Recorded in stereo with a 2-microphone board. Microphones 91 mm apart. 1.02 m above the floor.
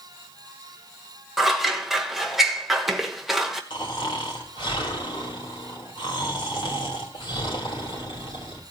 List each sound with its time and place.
1.4 s scissors: centre (ahead or behind), 1.4 m
3.7 s snoring: 70° left (ahead or behind), 3 m